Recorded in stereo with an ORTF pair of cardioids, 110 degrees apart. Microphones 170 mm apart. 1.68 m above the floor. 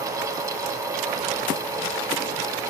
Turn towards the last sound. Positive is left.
turn(degrees=-20)